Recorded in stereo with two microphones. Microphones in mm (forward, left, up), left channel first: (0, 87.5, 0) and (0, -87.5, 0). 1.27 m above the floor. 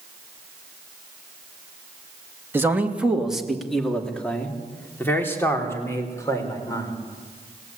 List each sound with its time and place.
2.5 s a man speaking: 15° right (ahead or behind), 2.5 m; by 6.9 s 20° left (ahead or behind), 5.5 m